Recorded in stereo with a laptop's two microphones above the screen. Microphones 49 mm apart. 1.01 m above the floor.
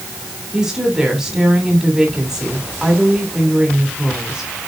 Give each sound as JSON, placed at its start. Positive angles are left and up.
{"t": 0.5, "sound": "a woman speaking", "side_deg": -10, "distance_m": 2.5}